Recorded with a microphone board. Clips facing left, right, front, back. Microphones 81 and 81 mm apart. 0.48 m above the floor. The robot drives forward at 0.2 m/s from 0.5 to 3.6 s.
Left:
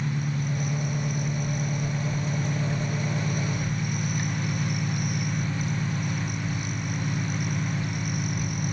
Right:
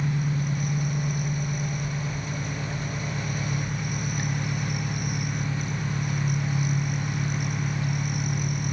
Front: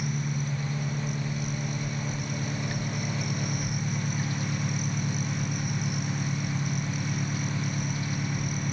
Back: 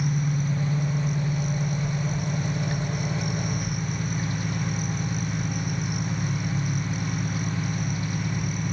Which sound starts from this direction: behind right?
An engine running, at 0.0 s.